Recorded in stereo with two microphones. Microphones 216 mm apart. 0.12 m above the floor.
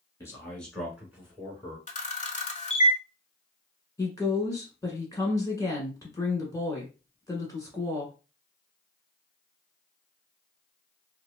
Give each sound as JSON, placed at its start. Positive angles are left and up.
{"t": 0.2, "sound": "a man speaking", "side_deg": 15, "distance_m": 1.2}
{"t": 1.9, "sound": "a camera shutter", "side_deg": 35, "distance_m": 0.5}
{"t": 4.0, "sound": "a woman speaking", "side_deg": 15, "distance_m": 1.0}